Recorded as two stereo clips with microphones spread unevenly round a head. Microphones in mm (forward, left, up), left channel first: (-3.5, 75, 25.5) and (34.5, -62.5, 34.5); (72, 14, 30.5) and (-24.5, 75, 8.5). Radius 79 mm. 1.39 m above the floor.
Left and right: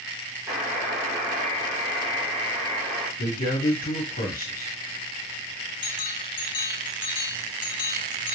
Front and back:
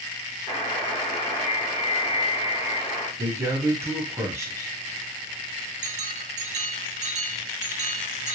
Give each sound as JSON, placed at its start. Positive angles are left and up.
{"t": 0.5, "sound": "a buzzer", "azimuth_deg": 20, "distance_m": 2.0}
{"t": 3.2, "sound": "a man speaking", "azimuth_deg": 85, "distance_m": 1.5}
{"t": 5.8, "sound": "a bell", "azimuth_deg": 165, "distance_m": 0.7}